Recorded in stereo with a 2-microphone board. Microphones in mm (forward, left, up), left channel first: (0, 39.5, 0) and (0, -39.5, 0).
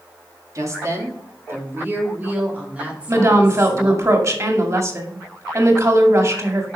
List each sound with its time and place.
0.6 s a woman speaking: 45° right (ahead or behind), 2.5 m; by 4.1 s 10° right (ahead or behind), 4 m
3.1 s a woman speaking: 40° right (ahead or behind), 2 m